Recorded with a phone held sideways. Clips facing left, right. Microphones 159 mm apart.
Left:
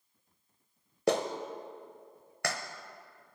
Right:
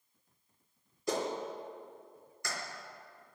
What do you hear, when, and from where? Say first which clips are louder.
1.1 s a clap: left 4 dB; 75° left (ahead or behind), 0.8 m